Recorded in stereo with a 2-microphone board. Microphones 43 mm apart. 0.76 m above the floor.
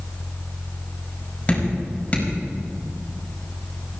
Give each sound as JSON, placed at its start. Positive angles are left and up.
{"t": 1.5, "sound": "dripping", "side_deg": 25, "distance_m": 5.0}